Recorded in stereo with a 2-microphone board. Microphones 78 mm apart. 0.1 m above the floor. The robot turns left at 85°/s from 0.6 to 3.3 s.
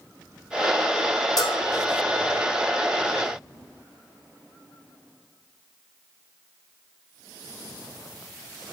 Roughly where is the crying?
No crying in this recording.